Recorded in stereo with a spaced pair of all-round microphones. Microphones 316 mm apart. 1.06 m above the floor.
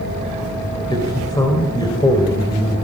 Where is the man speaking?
15° left (ahead or behind), 4 m.